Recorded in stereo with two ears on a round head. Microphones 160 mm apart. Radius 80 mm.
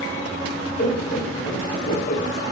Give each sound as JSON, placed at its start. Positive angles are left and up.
{"t": 0.8, "sound": "laughter", "side_deg": 50, "distance_m": 1.0}